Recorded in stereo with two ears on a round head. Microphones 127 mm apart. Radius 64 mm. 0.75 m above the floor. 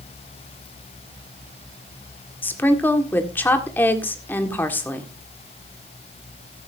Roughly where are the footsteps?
No footsteps in this recording.